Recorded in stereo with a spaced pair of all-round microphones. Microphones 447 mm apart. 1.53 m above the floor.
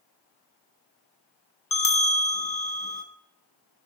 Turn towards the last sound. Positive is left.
turn(degrees=45)  # may be behind; listen again after turning